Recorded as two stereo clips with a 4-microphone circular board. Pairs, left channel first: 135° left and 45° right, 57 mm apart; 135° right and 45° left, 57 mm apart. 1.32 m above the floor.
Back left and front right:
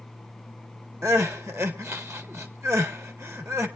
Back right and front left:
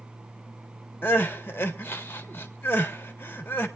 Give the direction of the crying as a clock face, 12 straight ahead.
3 o'clock.